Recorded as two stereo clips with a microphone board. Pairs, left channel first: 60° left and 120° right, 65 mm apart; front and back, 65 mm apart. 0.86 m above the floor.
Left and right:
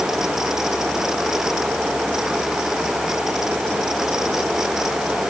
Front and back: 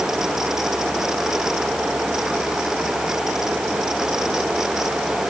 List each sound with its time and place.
Only background noise.